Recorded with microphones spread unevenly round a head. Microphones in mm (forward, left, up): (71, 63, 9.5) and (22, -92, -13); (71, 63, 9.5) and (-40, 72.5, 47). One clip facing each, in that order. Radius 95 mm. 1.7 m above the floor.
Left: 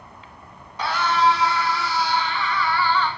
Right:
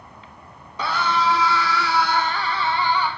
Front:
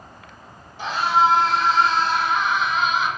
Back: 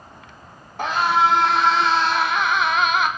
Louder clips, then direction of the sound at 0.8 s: Left 2 dB, even; 130° right.